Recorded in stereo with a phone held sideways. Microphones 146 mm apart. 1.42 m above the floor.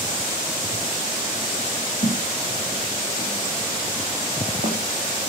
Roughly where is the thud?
Left.